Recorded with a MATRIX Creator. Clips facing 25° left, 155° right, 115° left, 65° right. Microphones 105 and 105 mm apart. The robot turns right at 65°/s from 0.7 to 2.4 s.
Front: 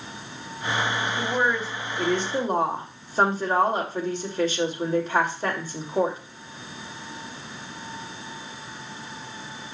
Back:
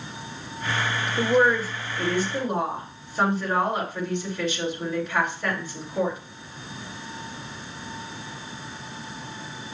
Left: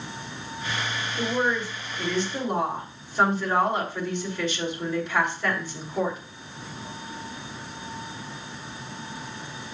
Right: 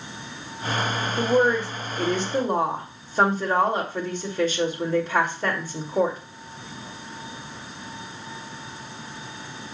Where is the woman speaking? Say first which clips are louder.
Back 7 dB, right 6 dB; 105° right, 2.5 m; by 6.2 s 25° right, 2.5 m.